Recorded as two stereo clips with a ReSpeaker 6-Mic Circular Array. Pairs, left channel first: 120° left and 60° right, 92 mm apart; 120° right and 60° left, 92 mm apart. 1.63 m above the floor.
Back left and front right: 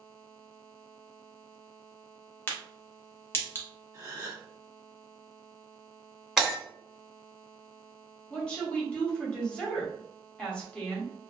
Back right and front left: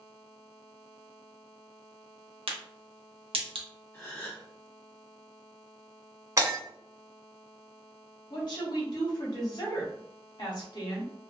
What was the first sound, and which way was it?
A crack, 55° left.